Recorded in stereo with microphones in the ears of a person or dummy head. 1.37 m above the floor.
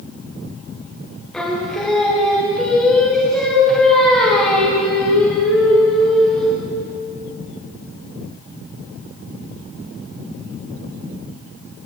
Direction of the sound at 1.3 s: Centre (ahead or behind).